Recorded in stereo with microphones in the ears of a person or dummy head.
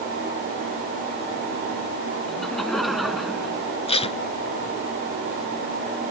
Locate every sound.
2.3 s laughter: 5° left (ahead or behind); by 3.8 s centre (ahead or behind)
3.9 s tape being pulled: 35° left (ahead or behind)